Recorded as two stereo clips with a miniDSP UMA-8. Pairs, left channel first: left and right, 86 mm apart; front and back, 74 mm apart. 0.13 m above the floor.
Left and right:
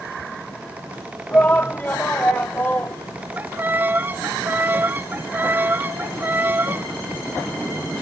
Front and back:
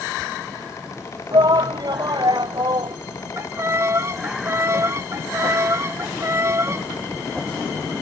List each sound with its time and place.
1.3 s a shout: 160° left
3.4 s a violin: 145° right